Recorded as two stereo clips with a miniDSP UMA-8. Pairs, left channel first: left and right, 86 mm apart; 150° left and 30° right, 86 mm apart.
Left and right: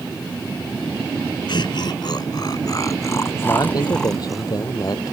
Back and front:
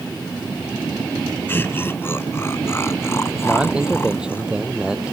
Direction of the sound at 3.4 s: 50° left.